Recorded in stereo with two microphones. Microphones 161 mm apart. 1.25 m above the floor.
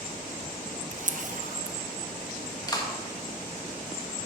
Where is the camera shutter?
55° right (ahead or behind), 0.5 m.